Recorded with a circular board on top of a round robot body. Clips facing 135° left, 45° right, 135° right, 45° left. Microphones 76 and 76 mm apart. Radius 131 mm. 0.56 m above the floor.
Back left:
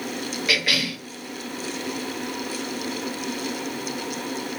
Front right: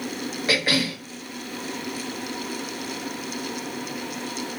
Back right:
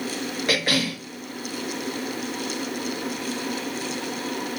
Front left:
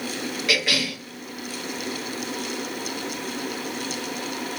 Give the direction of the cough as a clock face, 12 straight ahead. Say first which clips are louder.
Front right 3 dB, back right 1 dB; 3 o'clock.